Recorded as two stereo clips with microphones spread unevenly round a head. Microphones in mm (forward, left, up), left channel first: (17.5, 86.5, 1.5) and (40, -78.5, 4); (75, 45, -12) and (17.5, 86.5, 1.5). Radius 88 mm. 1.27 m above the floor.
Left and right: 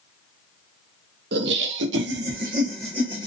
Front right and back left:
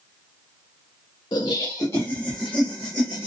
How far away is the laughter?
About 0.6 m.